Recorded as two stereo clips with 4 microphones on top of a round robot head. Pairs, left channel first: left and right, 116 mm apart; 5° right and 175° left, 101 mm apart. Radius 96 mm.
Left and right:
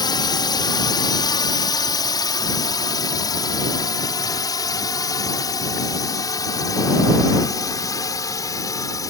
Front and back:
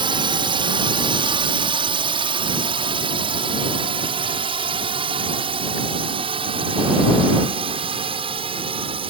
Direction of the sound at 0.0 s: 145° left.